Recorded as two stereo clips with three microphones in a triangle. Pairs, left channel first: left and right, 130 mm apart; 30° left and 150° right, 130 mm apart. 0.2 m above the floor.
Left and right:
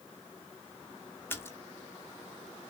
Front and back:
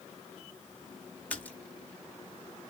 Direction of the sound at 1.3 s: 80° left.